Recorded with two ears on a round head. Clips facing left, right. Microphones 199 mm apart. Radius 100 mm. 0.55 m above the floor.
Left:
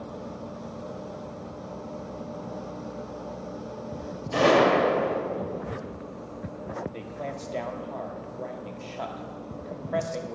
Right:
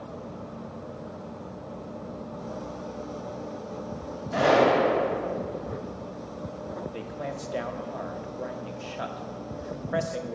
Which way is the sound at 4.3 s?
40° left (ahead or behind).